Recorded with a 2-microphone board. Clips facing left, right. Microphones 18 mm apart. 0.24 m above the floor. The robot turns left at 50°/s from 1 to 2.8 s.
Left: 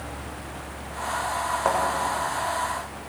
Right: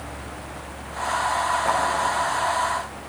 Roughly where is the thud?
Left.